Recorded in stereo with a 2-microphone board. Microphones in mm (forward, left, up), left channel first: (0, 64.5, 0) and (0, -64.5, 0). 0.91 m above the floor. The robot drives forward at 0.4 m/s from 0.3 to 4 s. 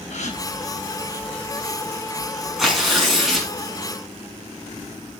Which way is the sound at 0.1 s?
65° left (ahead or behind).